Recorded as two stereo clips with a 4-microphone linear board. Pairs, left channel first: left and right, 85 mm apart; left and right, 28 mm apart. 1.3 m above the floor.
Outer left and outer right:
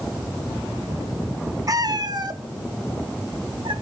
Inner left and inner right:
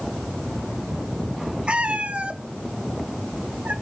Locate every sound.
1.7 s a cat meowing: 45° right (ahead or behind), 1.0 m; by 3.7 s 70° right (ahead or behind), 1.9 m